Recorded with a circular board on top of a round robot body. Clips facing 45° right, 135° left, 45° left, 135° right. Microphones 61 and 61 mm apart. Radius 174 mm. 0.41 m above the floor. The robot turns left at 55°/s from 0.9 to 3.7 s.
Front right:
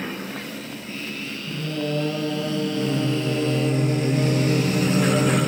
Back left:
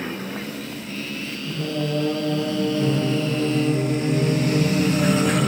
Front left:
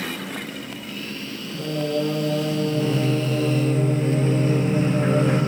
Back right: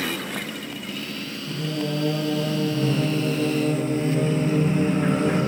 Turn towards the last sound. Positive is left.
turn(degrees=-10)